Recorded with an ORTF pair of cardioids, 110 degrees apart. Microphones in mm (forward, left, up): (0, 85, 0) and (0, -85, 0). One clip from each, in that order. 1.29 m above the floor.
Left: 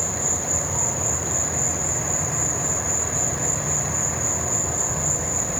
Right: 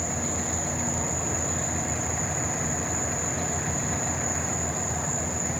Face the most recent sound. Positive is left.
turn(degrees=60)